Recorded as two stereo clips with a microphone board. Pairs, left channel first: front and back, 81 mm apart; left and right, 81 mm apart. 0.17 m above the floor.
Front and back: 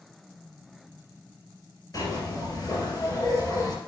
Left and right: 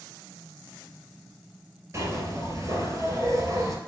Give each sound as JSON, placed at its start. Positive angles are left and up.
{"t": 1.9, "sound": "a zipper", "azimuth_deg": -40, "distance_m": 2.5}